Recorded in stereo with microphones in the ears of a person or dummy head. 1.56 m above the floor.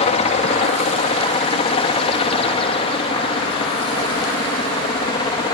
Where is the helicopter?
35° left (ahead or behind); by 5.5 s 25° left (ahead or behind).